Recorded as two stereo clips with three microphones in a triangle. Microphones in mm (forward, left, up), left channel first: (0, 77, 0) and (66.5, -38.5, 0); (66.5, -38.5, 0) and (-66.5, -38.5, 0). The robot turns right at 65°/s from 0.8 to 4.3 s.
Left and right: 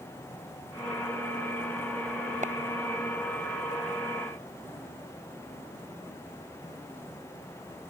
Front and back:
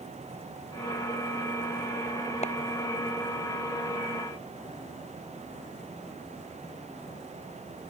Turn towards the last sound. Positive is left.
turn(degrees=85)